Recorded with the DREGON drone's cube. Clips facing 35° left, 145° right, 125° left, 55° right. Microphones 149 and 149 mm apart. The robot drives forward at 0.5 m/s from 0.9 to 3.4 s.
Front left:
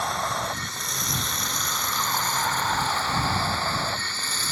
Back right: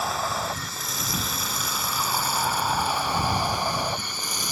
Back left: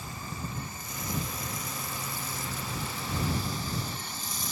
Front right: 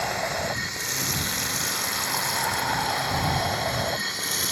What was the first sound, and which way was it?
Running water, 60° right.